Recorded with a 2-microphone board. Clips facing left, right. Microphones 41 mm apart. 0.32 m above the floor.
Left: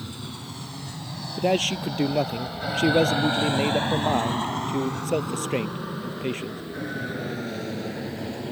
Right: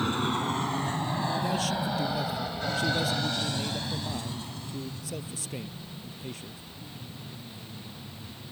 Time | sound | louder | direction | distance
0.0 | an aircraft | right 10 dB | 50° right (ahead or behind) | ?
1.4 | a man speaking | left 5 dB | 50° left (ahead or behind) | ?